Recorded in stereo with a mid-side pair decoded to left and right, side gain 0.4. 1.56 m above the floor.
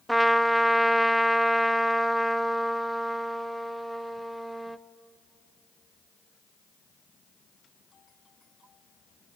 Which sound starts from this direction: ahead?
A trumpet, at 0.1 s.